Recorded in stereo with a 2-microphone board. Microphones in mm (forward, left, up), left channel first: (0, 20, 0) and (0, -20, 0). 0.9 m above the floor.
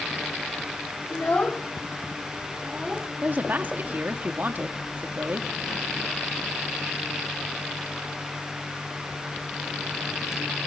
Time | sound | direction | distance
1.1 | a child speaking | 55° left (ahead or behind) | 1.9 m
3.2 | a woman speaking | 50° right (ahead or behind) | 1.7 m